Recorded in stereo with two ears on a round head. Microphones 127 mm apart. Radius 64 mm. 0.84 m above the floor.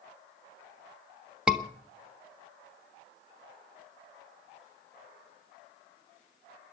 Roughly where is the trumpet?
I don't hear a trumpet.